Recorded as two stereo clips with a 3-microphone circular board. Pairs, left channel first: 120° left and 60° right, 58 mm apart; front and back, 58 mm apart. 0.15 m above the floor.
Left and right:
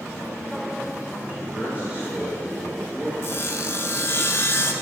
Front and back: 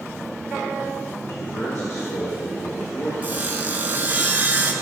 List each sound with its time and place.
1.2 s a man speaking: straight ahead, 2.5 m
3.2 s sawing: 135° left, 0.9 m